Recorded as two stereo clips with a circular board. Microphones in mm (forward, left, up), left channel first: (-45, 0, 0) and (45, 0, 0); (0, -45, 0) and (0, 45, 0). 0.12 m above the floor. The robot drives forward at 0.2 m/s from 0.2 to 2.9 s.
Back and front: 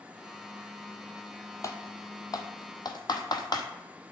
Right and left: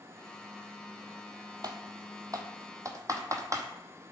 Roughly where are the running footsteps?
I don't hear running footsteps.